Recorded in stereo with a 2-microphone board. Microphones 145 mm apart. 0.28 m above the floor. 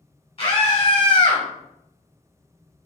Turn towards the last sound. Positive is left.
turn(degrees=35)  # may be behind; listen again after turning